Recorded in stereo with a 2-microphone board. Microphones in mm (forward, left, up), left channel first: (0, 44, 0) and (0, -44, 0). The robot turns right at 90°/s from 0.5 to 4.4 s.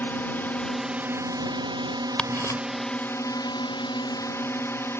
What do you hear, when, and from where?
0.0 s a drone: 155° left; by 5.0 s 145° left
2.2 s ticking: 10° left (ahead or behind); by 2.6 s 45° left (ahead or behind)